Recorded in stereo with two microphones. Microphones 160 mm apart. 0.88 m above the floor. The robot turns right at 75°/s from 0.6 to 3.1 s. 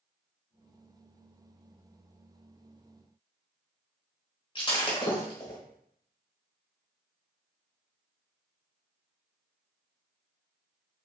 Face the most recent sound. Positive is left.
turn(degrees=30)  # may be behind; listen again after turning